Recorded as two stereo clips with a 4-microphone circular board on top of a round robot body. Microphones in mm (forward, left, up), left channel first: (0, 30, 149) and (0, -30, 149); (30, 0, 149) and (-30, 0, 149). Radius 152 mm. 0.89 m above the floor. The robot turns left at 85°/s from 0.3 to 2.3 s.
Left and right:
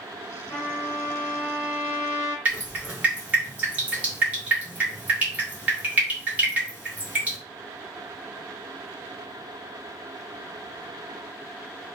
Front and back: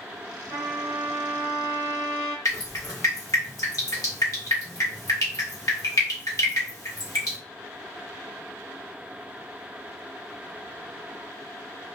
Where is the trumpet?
150° left, 1.8 m; by 2.4 s 5° right, 1.8 m.